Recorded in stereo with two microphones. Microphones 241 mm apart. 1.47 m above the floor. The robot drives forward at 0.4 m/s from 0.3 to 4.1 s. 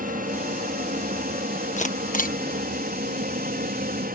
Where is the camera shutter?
30° left (ahead or behind); by 2.4 s 35° left (ahead or behind).